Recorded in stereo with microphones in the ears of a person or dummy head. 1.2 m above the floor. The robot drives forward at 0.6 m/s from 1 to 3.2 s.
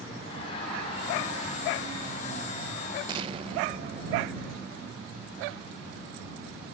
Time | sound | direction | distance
0.2 | laughter | 35° left (ahead or behind) | 8.5 m
3.1 | an explosion | 25° right (ahead or behind) | 0.9 m